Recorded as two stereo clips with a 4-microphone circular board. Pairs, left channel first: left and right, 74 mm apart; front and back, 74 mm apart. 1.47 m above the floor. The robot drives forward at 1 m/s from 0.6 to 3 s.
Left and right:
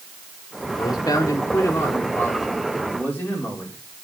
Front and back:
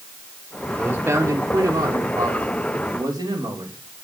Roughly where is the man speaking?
Left.